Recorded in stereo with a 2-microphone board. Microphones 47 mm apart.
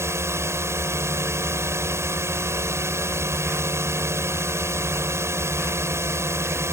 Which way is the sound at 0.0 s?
75° right (ahead or behind).